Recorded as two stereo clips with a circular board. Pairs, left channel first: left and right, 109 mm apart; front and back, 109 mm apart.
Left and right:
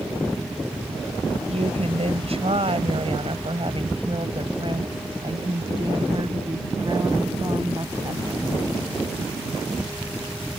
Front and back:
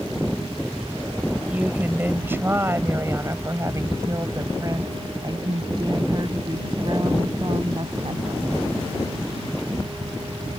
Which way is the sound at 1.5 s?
105° right.